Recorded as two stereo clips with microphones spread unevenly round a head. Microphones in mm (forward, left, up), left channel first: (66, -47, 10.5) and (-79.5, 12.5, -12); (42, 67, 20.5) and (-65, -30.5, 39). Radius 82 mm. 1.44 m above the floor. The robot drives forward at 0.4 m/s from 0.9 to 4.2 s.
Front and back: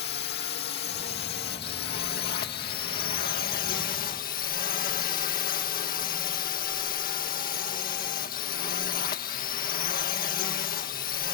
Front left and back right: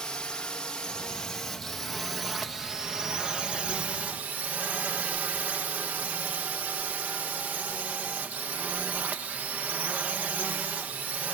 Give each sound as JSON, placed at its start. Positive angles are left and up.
{"t": 0.0, "sound": "a drone", "azimuth_deg": -40}